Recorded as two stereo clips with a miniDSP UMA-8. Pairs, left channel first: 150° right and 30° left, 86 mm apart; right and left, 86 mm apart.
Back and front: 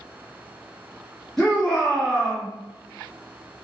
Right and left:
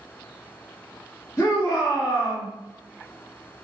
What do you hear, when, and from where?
1.4 s a shout: 70° right, 1.8 m